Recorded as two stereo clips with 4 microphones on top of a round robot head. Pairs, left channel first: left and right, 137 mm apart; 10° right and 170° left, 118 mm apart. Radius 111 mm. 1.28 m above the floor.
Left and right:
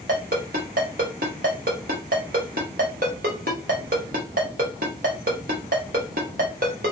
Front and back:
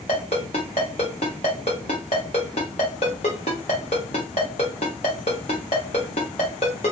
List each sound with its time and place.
0.1 s a ringtone: 60° right, 0.6 m